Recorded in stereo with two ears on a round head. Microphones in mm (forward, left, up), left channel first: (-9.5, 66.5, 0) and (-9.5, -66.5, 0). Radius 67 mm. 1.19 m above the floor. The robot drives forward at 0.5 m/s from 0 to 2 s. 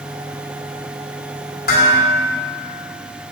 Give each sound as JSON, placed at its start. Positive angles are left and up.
{"t": 1.7, "sound": "dishes clattering", "side_deg": 65, "distance_m": 2.5}